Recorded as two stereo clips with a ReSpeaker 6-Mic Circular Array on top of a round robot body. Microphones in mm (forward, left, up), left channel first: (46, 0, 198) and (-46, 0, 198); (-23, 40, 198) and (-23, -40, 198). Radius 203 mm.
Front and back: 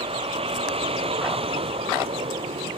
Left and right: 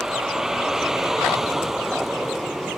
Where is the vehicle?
175° right; by 2.8 s straight behind.